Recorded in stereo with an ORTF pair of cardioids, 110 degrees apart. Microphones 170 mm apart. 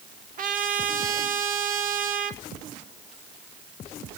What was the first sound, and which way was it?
A trumpet, 50° right.